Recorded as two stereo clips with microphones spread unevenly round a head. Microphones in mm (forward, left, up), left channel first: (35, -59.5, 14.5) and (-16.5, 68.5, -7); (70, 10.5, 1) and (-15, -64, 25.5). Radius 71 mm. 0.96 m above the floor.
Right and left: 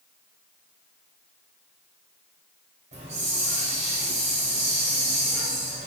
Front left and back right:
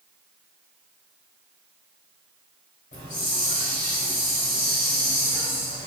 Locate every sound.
2.9 s a hiss: 70° left, 2.5 m